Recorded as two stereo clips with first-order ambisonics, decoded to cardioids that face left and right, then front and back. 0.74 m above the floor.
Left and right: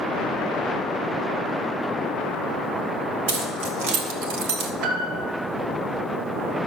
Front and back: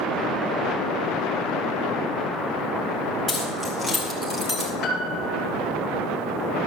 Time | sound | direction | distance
3.3 | keys jangling | 85° right | 3.5 m
4.8 | a piano | 50° right | 3 m